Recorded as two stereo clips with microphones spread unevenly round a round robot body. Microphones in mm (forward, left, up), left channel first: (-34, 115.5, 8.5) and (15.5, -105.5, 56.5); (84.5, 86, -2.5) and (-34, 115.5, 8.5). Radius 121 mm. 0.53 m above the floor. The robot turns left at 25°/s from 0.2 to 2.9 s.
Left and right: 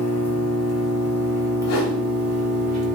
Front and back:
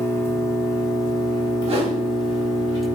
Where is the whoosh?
130° left, 0.6 m; by 2.0 s 120° left, 0.6 m.